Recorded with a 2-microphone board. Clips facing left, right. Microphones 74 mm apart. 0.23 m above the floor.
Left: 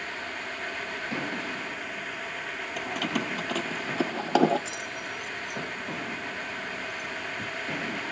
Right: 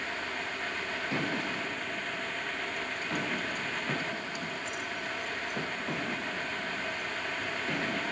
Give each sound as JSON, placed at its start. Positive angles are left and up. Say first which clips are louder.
{"t": 2.8, "sound": "keys jangling", "louder": "left 8 dB", "side_deg": 70}